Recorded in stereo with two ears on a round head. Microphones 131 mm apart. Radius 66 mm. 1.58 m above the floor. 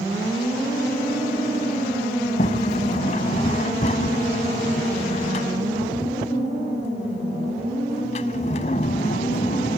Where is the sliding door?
50° left (ahead or behind).